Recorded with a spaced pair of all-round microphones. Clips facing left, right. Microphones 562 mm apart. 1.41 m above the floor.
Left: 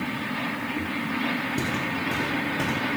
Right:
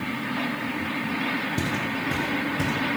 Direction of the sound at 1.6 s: 20° right (ahead or behind).